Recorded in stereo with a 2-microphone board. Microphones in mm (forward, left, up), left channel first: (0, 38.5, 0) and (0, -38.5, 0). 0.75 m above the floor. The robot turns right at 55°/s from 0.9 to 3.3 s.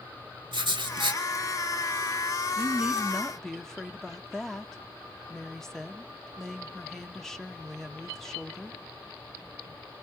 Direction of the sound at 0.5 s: 85° right.